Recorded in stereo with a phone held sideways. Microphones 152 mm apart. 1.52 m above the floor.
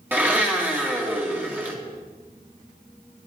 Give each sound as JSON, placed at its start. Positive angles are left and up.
{"t": 0.1, "sound": "a blender", "side_deg": -10, "distance_m": 1.8}